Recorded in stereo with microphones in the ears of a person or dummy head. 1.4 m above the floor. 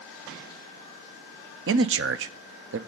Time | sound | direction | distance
1.7 | a man speaking | 65° right (ahead or behind) | 0.6 m